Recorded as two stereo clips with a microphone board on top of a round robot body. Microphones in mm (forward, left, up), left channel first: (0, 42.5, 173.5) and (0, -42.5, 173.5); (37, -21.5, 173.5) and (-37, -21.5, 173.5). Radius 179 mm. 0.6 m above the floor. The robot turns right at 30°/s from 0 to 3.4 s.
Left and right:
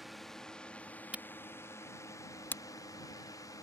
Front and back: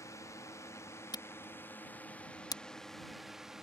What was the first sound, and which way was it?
A drone, 5° right.